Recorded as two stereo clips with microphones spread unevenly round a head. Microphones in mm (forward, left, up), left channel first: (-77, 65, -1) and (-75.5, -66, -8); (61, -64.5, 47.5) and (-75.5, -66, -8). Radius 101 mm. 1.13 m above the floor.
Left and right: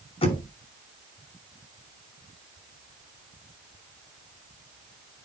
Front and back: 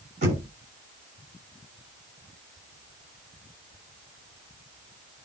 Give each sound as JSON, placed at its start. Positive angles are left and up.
{"t": 0.2, "sound": "knocking", "azimuth_deg": 130, "distance_m": 6.5}